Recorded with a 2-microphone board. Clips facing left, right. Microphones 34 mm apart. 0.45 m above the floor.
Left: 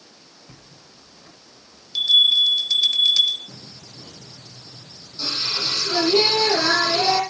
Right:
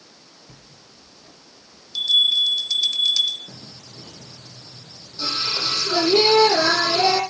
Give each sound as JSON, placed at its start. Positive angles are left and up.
{"t": 0.5, "sound": "a bell", "side_deg": 20, "distance_m": 1.3}
{"t": 3.5, "sound": "singing", "side_deg": -30, "distance_m": 6.0}